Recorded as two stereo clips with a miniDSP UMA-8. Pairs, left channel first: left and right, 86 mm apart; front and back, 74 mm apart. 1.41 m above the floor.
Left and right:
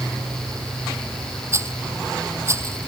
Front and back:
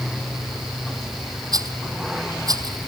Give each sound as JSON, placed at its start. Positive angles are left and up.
{"t": 1.5, "sound": "a rattle", "azimuth_deg": -145}